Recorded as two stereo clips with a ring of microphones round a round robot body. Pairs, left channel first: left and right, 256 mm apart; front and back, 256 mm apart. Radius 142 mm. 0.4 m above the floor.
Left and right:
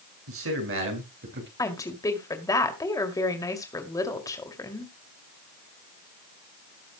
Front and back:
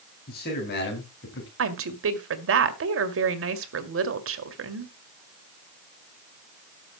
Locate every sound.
0.3 s a man speaking: 60° right, 5 m; by 1.5 s 45° right, 4 m
1.6 s a woman speaking: 165° left, 2 m